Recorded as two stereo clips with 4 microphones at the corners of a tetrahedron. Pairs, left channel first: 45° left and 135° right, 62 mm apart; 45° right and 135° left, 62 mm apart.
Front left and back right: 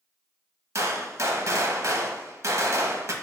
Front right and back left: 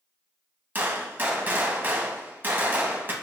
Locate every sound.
0.8 s a gunshot: 170° right, 0.5 m